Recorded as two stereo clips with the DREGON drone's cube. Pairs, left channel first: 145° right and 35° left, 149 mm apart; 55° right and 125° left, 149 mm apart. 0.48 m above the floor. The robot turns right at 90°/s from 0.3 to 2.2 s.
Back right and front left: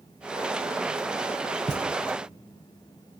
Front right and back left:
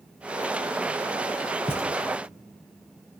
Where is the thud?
10° right, 2.5 m; by 1.9 s 10° left, 2.5 m.